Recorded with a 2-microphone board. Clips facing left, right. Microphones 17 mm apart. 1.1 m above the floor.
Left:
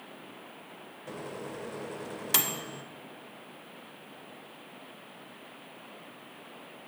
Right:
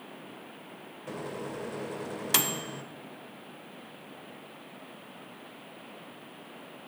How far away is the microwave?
About 0.5 m.